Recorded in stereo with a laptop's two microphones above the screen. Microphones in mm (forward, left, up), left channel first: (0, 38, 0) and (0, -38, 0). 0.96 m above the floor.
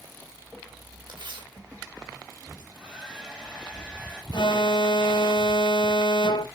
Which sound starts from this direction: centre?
A hair dryer, at 2.6 s.